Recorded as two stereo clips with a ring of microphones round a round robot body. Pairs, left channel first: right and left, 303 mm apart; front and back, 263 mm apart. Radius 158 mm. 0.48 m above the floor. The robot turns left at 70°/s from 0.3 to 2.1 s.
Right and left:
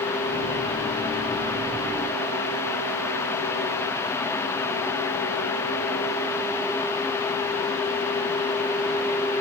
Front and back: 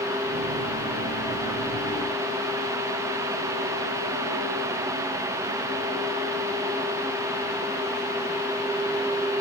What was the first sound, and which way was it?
Only background noise.